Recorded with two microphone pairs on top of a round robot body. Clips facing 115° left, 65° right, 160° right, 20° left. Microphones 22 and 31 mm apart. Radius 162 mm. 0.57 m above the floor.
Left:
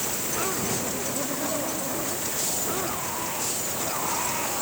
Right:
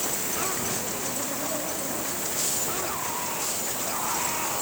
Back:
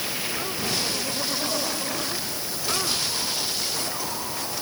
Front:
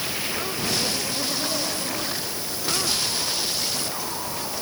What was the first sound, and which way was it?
Only background noise.